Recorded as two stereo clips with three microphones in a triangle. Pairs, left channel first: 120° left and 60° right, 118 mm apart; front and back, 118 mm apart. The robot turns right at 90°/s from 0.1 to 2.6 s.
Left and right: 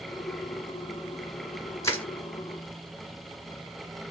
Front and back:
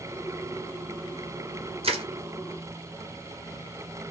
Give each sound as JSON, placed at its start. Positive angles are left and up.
{"t": 1.8, "sound": "crushing", "azimuth_deg": 180, "distance_m": 1.8}